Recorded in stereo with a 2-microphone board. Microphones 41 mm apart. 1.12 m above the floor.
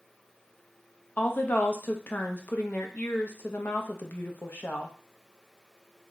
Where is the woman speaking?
45° left (ahead or behind), 0.6 m.